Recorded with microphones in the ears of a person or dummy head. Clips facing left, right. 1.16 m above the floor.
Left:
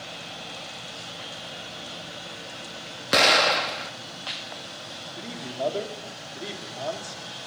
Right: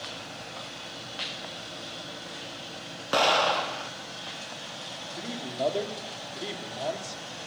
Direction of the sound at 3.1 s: 25° left (ahead or behind).